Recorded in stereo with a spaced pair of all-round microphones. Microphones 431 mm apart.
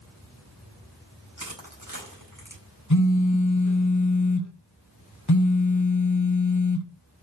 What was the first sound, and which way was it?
Crushing, 50° right (ahead or behind).